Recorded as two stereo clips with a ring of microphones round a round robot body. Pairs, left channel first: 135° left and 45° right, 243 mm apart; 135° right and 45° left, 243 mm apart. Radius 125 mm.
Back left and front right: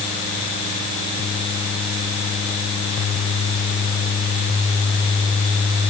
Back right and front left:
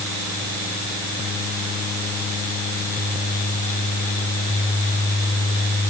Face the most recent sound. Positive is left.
No sound to turn to.